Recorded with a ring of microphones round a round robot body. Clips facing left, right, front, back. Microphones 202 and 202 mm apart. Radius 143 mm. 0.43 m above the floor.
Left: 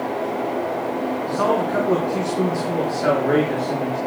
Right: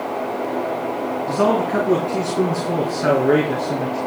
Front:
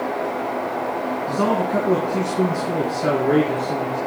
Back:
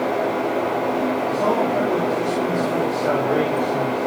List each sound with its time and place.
1.3 s a man speaking: 35° right, 4 m